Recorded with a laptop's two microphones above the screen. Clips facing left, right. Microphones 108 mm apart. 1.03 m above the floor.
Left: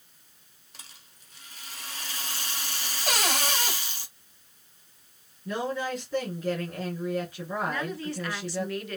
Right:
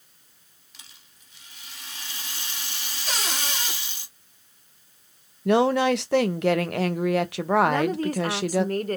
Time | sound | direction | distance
0.7 | a rattle | 45° left (ahead or behind) | 1.4 m
3.1 | a cupboard door | 55° left (ahead or behind) | 1.7 m
5.5 | a woman speaking | 75° right (ahead or behind) | 0.6 m
7.7 | a woman speaking | 45° right (ahead or behind) | 0.6 m